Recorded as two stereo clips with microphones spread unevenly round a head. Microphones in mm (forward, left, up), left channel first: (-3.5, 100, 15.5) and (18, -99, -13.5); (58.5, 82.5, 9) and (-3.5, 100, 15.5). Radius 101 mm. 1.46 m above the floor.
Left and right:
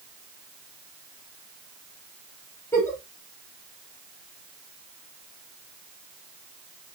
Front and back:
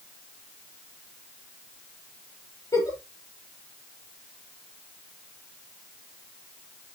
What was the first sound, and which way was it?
A giggle, 20° left.